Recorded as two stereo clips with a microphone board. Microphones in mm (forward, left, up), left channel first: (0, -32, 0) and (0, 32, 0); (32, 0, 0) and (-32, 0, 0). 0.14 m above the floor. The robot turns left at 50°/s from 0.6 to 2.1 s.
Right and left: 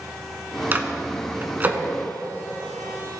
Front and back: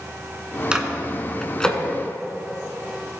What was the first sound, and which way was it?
A microwave, 110° left.